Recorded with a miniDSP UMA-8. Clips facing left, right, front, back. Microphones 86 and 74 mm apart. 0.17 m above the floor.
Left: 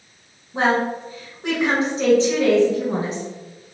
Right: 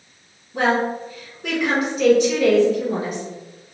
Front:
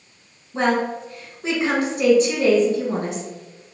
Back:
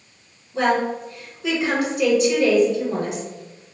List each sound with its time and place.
0.5 s a woman speaking: 40° left, 1.4 m